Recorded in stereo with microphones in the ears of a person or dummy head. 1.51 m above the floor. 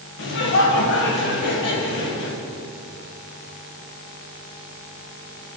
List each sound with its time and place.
0.2 s laughter: 55° left (ahead or behind), 1.9 m